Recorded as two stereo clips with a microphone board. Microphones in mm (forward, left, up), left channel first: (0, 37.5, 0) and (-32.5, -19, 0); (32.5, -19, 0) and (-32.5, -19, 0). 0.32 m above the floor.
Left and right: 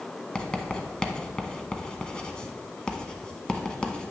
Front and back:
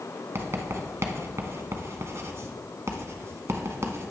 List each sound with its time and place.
0.3 s writing: 140° left, 0.9 m